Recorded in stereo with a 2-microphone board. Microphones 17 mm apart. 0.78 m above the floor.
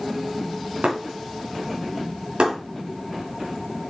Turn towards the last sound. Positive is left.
turn(degrees=-80)